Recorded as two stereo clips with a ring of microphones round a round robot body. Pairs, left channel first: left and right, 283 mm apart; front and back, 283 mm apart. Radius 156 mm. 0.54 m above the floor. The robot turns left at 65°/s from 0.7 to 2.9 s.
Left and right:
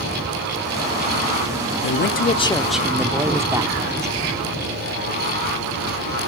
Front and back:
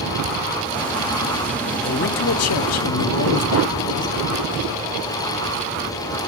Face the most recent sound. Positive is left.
turn(degrees=-10)